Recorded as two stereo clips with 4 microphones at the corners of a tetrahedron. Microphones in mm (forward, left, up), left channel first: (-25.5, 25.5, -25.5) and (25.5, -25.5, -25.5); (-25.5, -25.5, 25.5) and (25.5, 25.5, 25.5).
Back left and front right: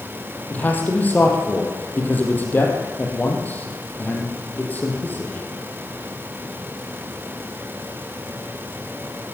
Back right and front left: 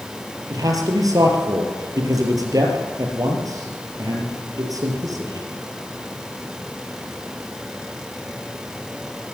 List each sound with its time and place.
0.5 s a man speaking: 70° left, 5.5 m